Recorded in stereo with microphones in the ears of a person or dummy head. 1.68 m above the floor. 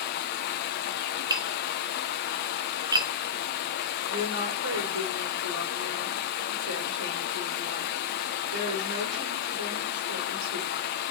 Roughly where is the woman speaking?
Right.